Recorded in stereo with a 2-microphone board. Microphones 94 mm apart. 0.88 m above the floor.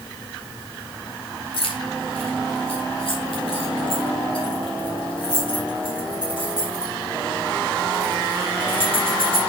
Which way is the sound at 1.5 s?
80° left.